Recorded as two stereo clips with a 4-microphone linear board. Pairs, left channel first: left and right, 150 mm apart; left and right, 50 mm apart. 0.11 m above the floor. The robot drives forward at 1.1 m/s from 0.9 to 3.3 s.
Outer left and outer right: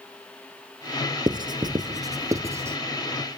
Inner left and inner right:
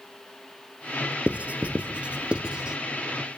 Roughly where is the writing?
Right.